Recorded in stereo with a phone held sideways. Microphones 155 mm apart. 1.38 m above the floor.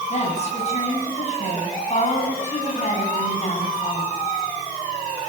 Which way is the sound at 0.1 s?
45° left (ahead or behind).